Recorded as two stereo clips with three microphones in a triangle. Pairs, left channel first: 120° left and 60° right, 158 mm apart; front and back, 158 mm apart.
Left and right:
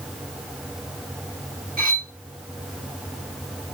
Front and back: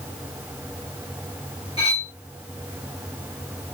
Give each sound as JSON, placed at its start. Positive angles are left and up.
{"t": 1.8, "sound": "cutlery clinking", "azimuth_deg": -50, "distance_m": 1.1}